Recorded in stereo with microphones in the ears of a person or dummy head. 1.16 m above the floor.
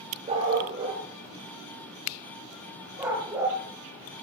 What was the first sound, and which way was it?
A dog barking, 40° right (ahead or behind).